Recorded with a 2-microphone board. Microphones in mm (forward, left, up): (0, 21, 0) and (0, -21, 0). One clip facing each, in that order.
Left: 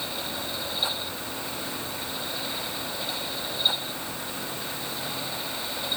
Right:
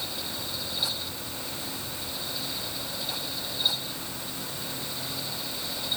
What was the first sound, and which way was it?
Only background noise.